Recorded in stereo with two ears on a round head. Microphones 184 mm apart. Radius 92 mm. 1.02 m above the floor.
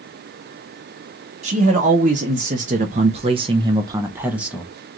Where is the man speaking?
35° right (ahead or behind), 1.4 m; by 4.7 s 5° right (ahead or behind), 1.2 m.